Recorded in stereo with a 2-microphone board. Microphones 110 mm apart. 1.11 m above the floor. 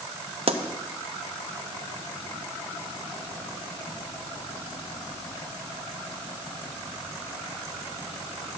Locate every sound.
0.5 s a pop: 55° right (ahead or behind), 0.7 m